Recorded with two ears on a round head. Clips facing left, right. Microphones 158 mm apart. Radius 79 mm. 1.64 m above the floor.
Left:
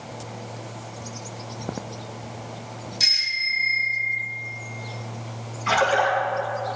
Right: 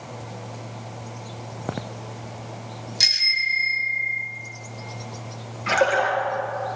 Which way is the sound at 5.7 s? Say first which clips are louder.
Even; 45° right (ahead or behind).